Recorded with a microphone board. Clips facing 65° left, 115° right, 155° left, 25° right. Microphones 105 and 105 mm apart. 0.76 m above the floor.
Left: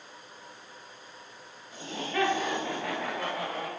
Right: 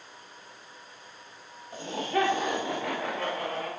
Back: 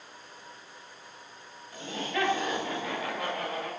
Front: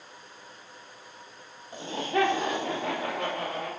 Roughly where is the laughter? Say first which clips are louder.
Right 3 dB, front 5 dB; ahead right.